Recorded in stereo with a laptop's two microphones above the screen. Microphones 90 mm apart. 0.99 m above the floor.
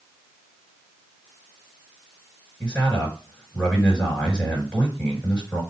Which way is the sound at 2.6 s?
15° left (ahead or behind).